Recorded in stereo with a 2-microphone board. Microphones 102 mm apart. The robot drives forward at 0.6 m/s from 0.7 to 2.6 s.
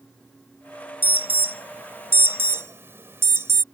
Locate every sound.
1.0 s an alarm: 20° right (ahead or behind); by 3.6 s 25° right (ahead or behind)